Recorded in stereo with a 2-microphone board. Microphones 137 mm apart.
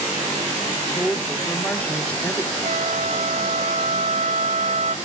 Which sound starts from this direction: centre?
A woman speaking, at 0.9 s.